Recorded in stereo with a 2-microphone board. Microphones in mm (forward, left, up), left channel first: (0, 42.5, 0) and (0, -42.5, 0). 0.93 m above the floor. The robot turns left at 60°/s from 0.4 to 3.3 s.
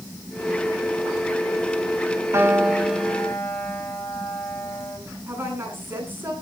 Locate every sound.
2.3 s a piano: 145° right, 3 m; by 5.0 s 155° left, 3 m
5.3 s a woman speaking: 25° right (ahead or behind), 10 m